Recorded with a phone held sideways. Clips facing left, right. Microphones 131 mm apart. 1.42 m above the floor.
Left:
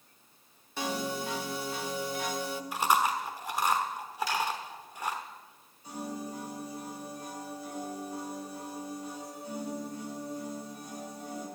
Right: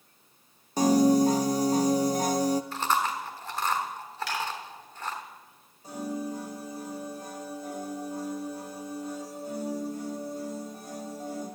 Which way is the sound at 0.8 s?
40° right (ahead or behind).